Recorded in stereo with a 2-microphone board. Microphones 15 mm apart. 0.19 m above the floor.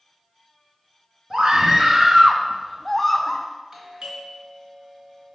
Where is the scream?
50° right (ahead or behind), 2 m; by 3.5 s 25° left (ahead or behind), 1.1 m.